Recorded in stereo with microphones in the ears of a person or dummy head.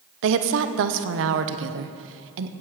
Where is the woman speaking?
65° right (ahead or behind), 0.8 m.